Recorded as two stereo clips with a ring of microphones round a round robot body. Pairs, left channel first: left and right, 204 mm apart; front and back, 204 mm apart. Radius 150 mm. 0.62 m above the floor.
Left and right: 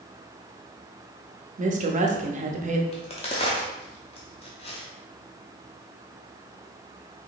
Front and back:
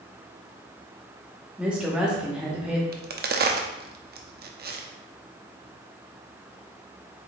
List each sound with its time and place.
1.6 s a woman speaking: 100° right, 0.7 m
2.9 s a crack: 150° left, 0.6 m